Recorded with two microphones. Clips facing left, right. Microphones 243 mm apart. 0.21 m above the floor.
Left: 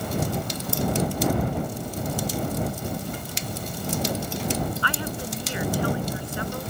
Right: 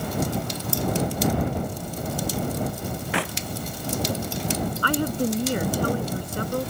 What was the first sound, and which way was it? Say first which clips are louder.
A clap: right 7 dB; 70° right (ahead or behind).